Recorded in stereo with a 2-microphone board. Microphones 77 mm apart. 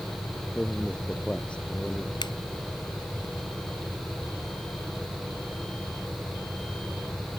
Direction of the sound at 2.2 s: 75° left (ahead or behind).